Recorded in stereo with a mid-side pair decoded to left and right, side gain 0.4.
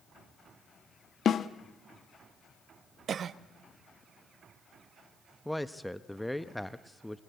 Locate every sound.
1.2 s a snare drum: 60° left, 1.1 m
3.1 s a cough: 55° right, 1.0 m
5.5 s a man speaking: 5° left, 1.0 m